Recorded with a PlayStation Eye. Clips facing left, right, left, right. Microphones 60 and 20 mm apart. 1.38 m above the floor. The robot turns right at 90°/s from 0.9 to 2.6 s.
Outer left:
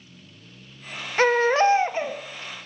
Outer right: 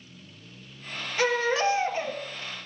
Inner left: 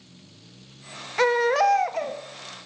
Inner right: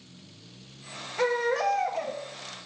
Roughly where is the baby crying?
Left.